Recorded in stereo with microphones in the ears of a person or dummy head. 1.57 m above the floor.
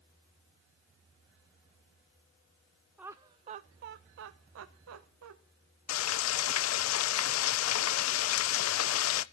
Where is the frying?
75° left (ahead or behind), 0.6 m.